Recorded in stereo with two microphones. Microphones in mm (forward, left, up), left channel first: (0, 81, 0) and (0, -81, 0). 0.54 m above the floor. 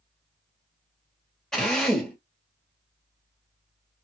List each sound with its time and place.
1.5 s a drill: 5° left (ahead or behind), 1.8 m